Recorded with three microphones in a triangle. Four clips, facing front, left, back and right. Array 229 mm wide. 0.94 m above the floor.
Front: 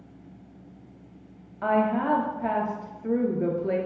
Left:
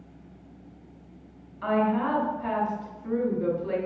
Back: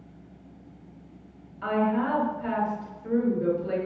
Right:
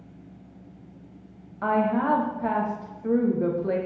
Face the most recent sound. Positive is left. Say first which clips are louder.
# right 1 dB, front 2 dB
turn(degrees=-50)